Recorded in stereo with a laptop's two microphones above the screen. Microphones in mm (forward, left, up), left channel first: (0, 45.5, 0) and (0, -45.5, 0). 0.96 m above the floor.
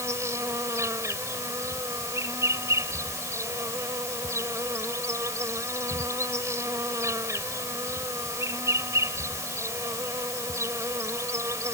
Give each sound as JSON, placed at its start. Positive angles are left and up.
{"t": 0.0, "sound": "an insect", "side_deg": -35}